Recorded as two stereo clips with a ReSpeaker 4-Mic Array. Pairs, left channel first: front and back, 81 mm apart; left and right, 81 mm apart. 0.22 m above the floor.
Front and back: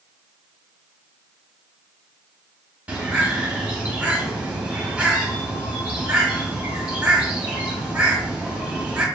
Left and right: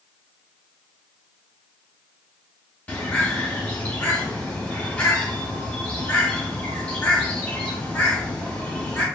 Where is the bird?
135° left, 0.8 m.